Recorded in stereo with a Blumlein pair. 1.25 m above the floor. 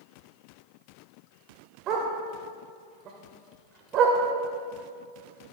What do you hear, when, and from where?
1.9 s a dog barking: 35° right, 2.5 m